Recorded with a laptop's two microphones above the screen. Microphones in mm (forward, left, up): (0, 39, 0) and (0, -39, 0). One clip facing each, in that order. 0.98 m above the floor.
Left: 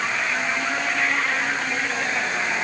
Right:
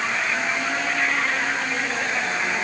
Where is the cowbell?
No cowbell in this recording.